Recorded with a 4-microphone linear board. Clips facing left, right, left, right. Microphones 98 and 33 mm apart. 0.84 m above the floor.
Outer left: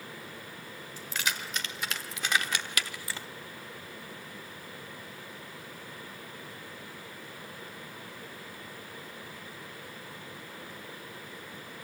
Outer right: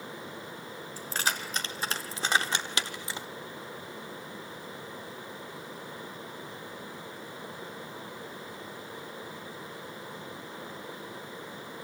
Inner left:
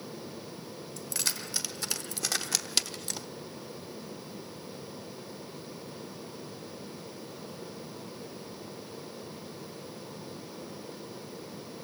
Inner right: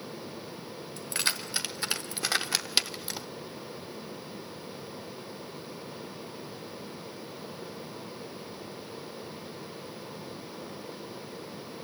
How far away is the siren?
I don't hear a siren.